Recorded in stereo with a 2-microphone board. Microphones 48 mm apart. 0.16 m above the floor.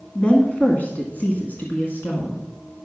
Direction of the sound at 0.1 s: 20° left (ahead or behind).